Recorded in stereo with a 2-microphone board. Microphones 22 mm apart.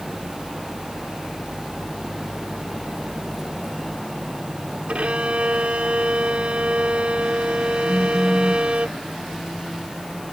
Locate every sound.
4.9 s a violin: 70° right (ahead or behind)
7.9 s a phone buzzing: 65° left (ahead or behind)